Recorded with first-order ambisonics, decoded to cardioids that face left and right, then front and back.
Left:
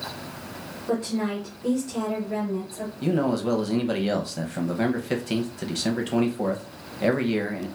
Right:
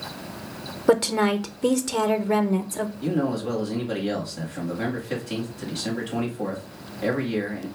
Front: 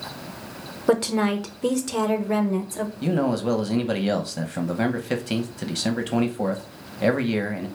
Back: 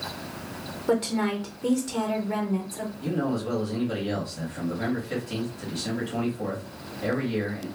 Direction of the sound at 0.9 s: 60° right.